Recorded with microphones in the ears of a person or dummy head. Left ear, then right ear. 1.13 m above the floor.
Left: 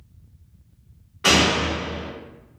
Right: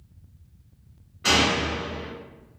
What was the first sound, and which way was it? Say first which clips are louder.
A door slam: left 3 dB; 40° left (ahead or behind).